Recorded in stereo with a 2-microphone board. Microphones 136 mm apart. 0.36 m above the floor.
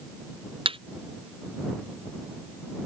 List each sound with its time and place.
0.7 s a thud: 40° right (ahead or behind)